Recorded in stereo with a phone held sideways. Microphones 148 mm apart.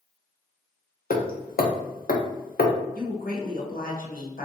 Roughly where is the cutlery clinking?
I don't hear cutlery clinking.